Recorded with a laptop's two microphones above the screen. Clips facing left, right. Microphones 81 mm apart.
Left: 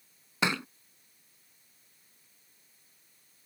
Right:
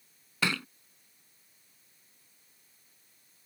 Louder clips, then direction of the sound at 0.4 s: Left 2 dB; 20° left (ahead or behind).